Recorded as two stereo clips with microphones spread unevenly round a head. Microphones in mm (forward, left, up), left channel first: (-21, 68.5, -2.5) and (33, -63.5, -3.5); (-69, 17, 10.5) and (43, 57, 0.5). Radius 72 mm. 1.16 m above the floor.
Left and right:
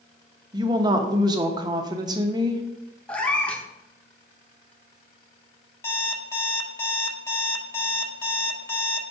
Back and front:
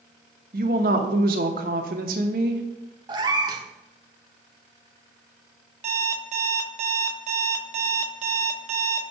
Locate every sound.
0.5 s a woman speaking: 5° right, 0.9 m
3.1 s a cat meowing: 40° left, 0.8 m
5.8 s an alarm clock: 40° left, 1.1 m